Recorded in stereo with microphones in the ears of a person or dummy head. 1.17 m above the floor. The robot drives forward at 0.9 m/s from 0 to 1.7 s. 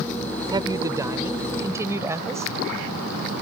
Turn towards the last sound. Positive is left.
turn(degrees=-20)  # may be behind; listen again after turning